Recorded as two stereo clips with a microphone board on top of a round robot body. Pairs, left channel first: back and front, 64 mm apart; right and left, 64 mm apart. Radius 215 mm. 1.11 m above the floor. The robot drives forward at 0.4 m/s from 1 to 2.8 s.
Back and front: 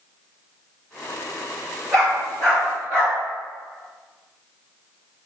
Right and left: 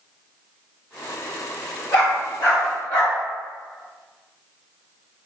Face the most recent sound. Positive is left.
turn(degrees=-140)